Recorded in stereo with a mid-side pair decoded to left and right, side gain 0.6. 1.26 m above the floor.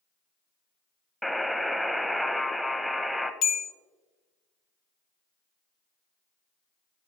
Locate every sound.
1.2 s a buzzer: straight ahead, 0.6 m
3.4 s a bell: 65° left, 0.8 m